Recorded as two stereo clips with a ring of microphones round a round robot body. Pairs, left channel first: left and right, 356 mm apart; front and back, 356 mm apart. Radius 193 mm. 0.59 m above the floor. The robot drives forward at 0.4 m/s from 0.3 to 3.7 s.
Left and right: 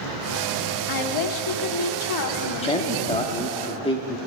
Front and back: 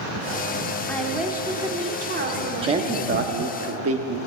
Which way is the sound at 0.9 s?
85° left.